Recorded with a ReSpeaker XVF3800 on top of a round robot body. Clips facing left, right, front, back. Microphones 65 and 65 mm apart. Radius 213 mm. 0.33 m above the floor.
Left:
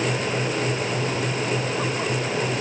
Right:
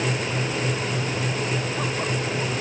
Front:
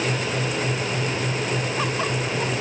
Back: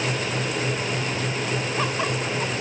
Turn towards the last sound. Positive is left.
No sound to turn to.